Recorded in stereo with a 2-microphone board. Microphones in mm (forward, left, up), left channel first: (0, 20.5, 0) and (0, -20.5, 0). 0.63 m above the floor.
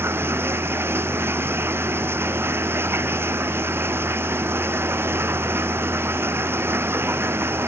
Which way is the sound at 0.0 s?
75° right (ahead or behind).